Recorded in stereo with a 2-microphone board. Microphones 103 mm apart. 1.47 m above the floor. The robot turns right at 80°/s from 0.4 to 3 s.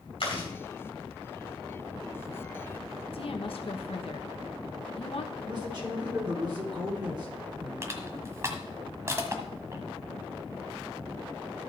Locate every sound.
0.2 s chewing: 65° left (ahead or behind), 5 m; by 0.5 s 70° left (ahead or behind), 5 m
3.1 s a woman speaking: 65° left (ahead or behind), 1.2 m
5.4 s a man speaking: 45° right (ahead or behind), 3.5 m
7.8 s crushing: 30° right (ahead or behind), 1.5 m